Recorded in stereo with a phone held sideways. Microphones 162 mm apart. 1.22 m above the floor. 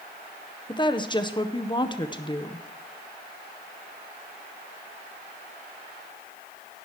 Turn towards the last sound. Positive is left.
turn(degrees=25)  # may be behind; listen again after turning